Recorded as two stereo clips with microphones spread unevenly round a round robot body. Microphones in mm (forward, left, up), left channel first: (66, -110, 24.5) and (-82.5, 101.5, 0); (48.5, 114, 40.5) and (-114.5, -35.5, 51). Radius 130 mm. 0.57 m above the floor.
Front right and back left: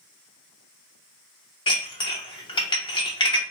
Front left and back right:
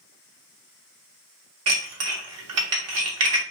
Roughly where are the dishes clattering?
Behind right.